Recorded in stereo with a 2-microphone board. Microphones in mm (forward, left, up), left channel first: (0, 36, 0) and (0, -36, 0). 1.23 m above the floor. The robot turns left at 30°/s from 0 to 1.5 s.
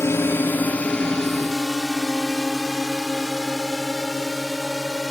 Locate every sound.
0.0 s a drone: 40° left (ahead or behind); by 5.1 s centre (ahead or behind)